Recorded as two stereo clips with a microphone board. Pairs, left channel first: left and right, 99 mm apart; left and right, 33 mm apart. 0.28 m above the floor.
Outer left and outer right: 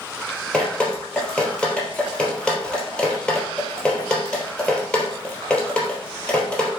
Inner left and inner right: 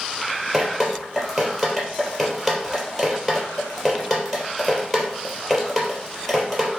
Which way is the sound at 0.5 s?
10° left (ahead or behind).